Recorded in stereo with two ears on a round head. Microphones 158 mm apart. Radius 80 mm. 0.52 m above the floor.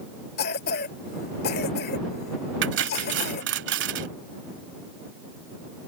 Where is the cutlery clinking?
70° right (ahead or behind).